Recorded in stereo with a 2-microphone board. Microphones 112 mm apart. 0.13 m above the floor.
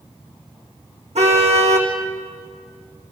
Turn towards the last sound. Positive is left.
turn(degrees=-75)  # may be behind; listen again after turning